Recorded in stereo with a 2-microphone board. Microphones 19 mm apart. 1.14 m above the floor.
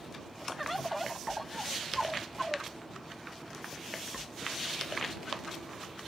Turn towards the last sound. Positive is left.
turn(degrees=0)  # may be behind; listen again after turning